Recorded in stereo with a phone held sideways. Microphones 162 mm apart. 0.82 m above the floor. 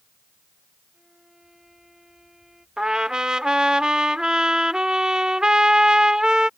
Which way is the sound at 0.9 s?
5° right (ahead or behind).